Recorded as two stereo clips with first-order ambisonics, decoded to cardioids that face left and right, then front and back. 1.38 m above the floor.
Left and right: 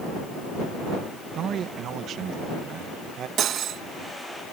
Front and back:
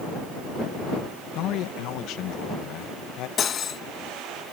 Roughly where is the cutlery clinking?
Ahead right.